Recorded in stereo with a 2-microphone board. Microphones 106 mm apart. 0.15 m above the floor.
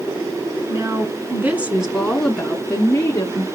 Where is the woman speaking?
30° right (ahead or behind), 2 m; by 3.4 s 30° left (ahead or behind), 2 m.